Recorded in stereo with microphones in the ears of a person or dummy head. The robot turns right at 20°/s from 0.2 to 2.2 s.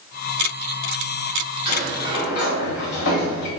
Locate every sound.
1.6 s a sliding door: 45° left (ahead or behind), 1.5 m; by 3.5 s 55° left (ahead or behind), 1.5 m